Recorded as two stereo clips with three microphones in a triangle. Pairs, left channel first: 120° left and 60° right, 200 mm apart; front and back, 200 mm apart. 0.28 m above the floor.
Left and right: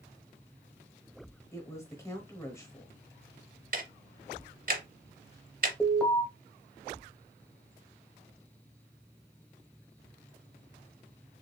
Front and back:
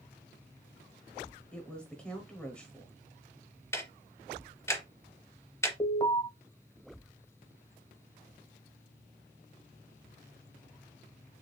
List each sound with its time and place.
1.5 s a woman speaking: 75° left, 0.9 m
3.7 s ticking: 70° right, 0.7 m
5.8 s an alarm: 45° left, 0.9 m